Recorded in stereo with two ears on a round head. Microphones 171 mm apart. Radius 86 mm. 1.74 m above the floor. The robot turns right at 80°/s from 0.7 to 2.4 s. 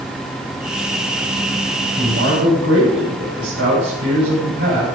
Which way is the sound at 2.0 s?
145° right.